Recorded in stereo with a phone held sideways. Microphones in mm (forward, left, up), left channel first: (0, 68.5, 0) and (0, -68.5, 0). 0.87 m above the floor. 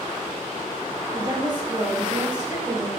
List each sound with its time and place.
1.1 s a woman speaking: 30° right (ahead or behind), 1.3 m